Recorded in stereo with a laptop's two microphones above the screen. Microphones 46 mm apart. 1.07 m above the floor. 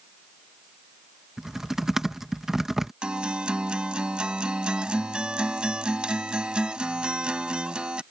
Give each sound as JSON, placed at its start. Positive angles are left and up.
{"t": 1.4, "sound": "typing on a keyboard", "side_deg": -10}
{"t": 3.0, "sound": "a guitar", "side_deg": -20}